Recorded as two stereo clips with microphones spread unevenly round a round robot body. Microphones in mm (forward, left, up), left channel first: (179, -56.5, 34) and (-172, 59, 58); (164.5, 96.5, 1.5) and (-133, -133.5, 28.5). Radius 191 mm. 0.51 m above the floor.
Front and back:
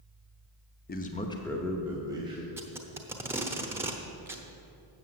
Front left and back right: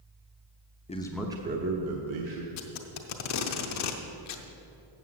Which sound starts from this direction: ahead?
A man speaking, at 0.9 s.